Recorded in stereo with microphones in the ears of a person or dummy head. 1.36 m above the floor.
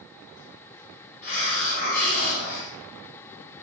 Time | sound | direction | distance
1.2 | a hiss | 50° left (ahead or behind) | 1.4 m